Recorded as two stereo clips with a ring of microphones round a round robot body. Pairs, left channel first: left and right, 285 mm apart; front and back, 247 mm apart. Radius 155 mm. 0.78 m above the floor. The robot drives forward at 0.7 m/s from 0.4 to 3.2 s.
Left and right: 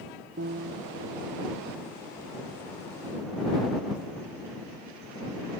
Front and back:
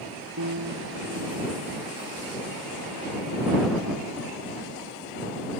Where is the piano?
150° right.